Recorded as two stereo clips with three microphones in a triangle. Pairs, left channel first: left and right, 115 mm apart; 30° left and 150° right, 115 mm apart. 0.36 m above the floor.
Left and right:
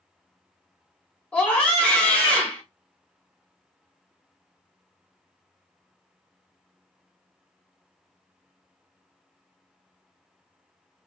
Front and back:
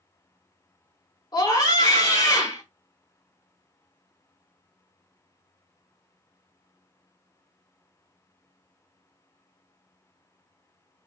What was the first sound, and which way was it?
A scream, 20° left.